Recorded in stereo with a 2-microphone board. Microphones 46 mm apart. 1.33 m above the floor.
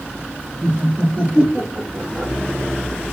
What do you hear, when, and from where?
0.6 s laughter: 40° right (ahead or behind), 1.0 m; by 2.3 s 15° right (ahead or behind), 1.9 m